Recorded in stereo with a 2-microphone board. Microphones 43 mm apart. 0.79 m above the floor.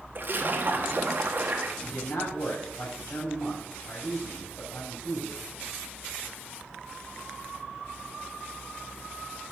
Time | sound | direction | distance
0.1 | a splash | 45° right (ahead or behind) | 1.4 m
1.8 | a man speaking | 60° left (ahead or behind) | 6 m